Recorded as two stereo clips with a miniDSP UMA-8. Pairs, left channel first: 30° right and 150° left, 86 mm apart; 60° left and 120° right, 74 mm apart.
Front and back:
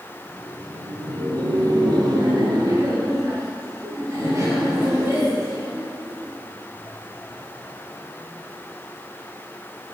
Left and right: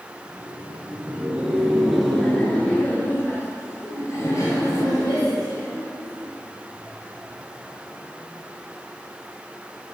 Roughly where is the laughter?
Behind.